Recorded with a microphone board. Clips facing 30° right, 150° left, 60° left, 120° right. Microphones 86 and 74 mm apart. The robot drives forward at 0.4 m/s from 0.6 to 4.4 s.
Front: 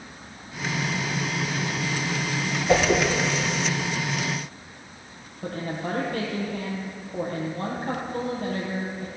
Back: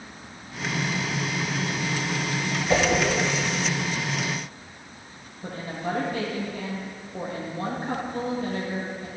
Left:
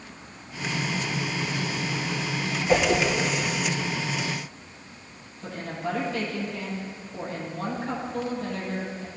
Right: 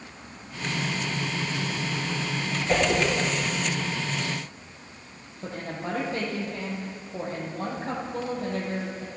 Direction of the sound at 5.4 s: 65° right.